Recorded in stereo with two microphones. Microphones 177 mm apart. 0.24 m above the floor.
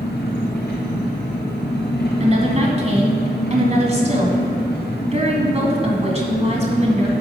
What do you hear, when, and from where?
0.0 s an engine running: 70° left (ahead or behind), 2.5 m
2.2 s a woman speaking: 40° right (ahead or behind), 1.7 m